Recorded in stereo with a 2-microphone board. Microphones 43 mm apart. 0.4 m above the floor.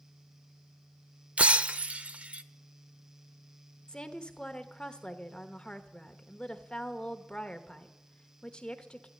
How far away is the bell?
I don't hear a bell.